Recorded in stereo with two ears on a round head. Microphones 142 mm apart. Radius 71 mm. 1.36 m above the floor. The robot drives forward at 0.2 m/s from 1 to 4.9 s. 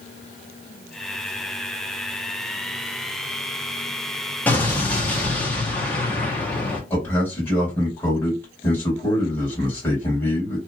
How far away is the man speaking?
About 1.9 m.